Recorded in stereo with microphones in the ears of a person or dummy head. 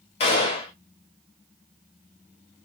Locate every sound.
0.2 s a gunshot: 30° left (ahead or behind), 0.7 m